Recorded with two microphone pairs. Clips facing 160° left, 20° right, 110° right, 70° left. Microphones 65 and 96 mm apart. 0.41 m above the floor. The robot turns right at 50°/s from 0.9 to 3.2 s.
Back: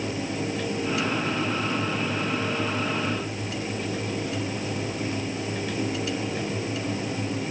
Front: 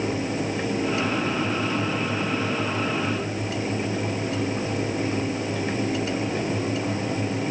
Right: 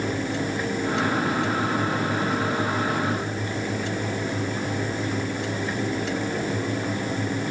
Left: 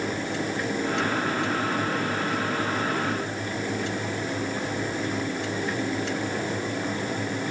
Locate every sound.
Only background noise.